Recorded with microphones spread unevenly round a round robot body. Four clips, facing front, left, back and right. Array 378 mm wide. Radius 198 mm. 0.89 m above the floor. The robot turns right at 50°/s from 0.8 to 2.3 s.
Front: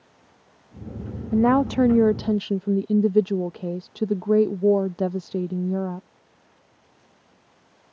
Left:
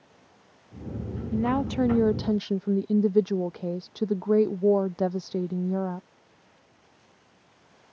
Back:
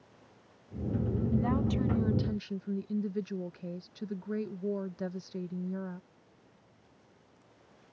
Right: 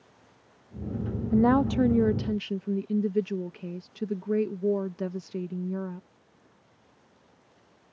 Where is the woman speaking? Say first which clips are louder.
Right 4 dB, front 14 dB; 25° right; by 6.1 s 20° left.